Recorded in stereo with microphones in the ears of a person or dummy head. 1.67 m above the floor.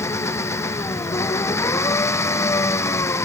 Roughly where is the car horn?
I don't hear a car horn.